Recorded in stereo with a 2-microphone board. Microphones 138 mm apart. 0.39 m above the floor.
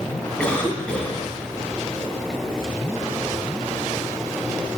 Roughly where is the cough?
Centre.